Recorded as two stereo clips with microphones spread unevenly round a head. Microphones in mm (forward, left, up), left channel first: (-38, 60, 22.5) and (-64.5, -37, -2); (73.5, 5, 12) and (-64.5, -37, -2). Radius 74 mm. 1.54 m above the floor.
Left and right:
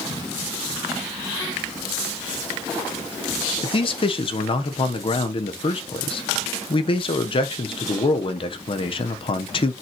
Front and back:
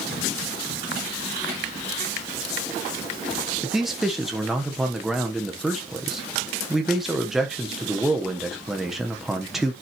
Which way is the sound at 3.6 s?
110° left.